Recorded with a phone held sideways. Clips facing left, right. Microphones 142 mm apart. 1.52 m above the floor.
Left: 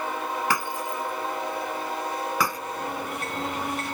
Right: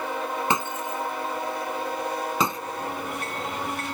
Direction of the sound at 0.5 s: 25° right (ahead or behind).